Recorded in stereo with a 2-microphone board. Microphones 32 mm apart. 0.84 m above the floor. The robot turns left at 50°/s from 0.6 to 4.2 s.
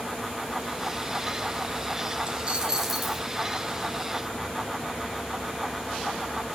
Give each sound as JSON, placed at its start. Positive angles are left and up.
{"t": 2.3, "sound": "a dropped coin", "azimuth_deg": -140, "distance_m": 1.1}